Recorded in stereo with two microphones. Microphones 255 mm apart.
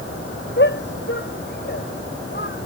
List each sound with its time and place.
0.6 s a shout: 45° left (ahead or behind); by 2.7 s 40° left (ahead or behind)